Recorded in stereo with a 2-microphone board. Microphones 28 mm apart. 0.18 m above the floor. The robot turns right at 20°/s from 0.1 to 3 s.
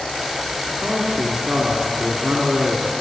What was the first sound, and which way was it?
A man speaking, 110° right.